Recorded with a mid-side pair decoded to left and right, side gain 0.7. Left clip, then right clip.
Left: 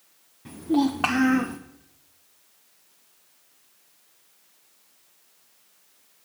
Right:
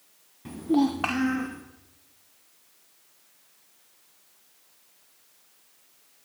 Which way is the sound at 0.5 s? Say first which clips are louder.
Left 1 dB; 15° right.